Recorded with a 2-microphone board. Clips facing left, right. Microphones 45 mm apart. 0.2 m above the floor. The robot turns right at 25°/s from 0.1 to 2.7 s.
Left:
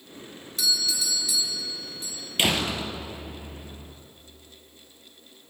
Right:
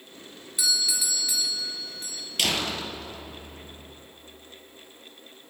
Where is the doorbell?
170° right, 4 m; by 2.3 s 130° right, 4 m.